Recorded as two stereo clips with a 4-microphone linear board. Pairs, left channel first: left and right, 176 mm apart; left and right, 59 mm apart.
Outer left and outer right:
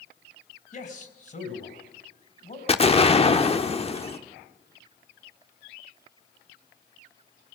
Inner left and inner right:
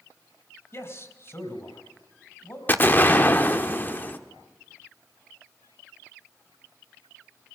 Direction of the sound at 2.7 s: 35° left (ahead or behind).